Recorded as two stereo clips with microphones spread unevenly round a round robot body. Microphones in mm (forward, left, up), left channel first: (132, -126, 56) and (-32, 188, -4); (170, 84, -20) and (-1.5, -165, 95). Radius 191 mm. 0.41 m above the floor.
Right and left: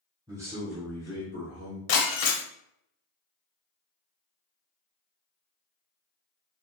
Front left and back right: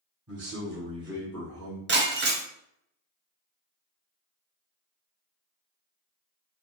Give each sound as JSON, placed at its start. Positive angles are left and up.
{"t": 0.3, "sound": "a man speaking", "azimuth_deg": -175, "distance_m": 1.1}
{"t": 1.9, "sound": "breaking glass", "azimuth_deg": -60, "distance_m": 0.6}